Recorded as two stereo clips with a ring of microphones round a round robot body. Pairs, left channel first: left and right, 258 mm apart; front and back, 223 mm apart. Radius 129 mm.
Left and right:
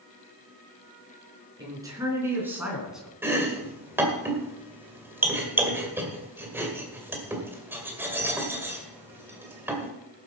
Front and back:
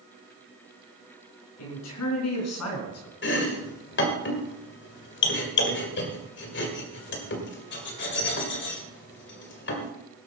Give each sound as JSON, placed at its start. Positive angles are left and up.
{"t": 1.6, "sound": "a man speaking", "azimuth_deg": -15, "distance_m": 5.0}
{"t": 3.2, "sound": "chopping", "azimuth_deg": -10, "distance_m": 2.0}